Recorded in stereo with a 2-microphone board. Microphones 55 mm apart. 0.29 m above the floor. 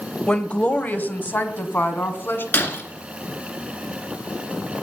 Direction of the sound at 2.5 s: 40° left (ahead or behind).